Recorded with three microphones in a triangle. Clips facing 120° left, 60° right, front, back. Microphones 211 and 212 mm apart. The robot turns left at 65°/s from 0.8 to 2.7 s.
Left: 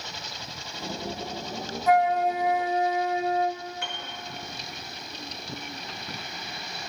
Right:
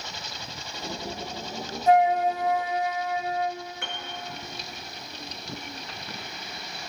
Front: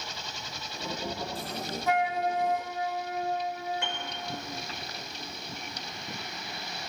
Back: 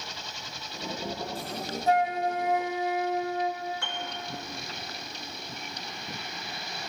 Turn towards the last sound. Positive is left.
turn(degrees=-65)